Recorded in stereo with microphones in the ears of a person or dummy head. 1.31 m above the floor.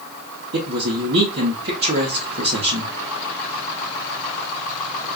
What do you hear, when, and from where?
0.5 s a man speaking: 50° right (ahead or behind), 0.9 m